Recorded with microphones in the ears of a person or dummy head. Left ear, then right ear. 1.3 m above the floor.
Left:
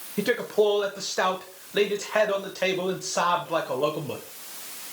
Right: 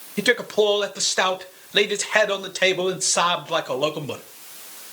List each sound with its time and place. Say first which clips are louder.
0.2 s a man speaking: right 4 dB; 60° right (ahead or behind), 0.7 m